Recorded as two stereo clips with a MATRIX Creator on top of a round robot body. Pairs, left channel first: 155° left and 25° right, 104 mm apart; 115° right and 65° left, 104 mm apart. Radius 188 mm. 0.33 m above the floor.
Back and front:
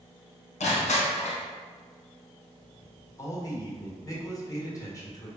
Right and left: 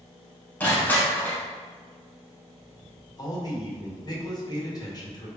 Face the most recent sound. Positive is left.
turn(degrees=-155)